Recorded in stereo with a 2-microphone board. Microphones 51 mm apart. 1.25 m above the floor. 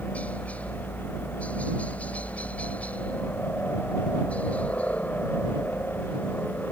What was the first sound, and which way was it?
A helicopter, 25° left (ahead or behind).